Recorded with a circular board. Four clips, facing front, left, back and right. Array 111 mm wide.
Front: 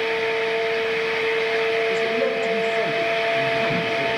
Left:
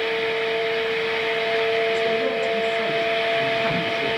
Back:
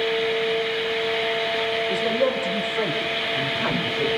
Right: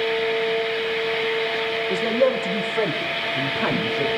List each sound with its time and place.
1.9 s a man speaking: 100° right, 6.5 m; by 4.2 s 80° right, 7 m